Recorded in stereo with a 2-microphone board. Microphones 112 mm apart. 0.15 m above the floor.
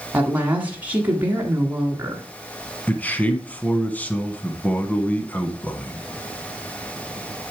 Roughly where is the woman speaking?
Centre.